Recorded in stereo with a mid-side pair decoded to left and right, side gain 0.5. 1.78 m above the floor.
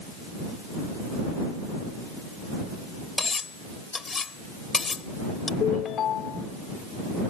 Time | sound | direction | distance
3.2 | cutlery clinking | 30° left | ?
5.6 | a ringtone | 55° left | ?